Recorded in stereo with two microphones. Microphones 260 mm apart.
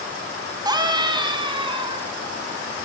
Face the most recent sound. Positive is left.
turn(degrees=-20)  # may be behind; listen again after turning